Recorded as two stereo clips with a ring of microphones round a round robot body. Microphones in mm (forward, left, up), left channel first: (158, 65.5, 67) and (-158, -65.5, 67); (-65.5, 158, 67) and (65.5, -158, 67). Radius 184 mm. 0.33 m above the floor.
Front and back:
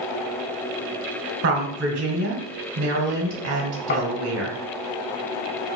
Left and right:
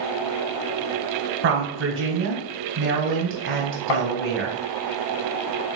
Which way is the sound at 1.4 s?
110° right.